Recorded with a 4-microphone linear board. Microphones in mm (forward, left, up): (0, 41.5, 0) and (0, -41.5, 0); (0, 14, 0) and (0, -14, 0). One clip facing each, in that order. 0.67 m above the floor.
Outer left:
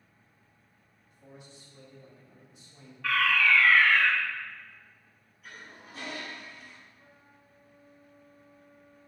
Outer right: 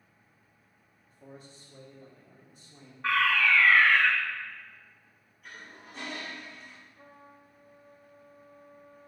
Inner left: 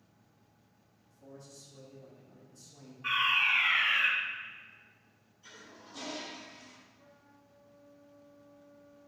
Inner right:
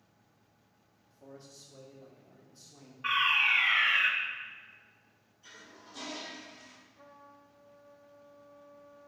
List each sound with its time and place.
1.1 s a man speaking: 35° right (ahead or behind), 1.4 m; by 2.9 s 45° right (ahead or behind), 2 m
3.0 s a fire alarm: 25° right (ahead or behind), 2 m
5.4 s a toilet flushing: centre (ahead or behind), 2 m
7.0 s a trumpet: 50° right (ahead or behind), 0.6 m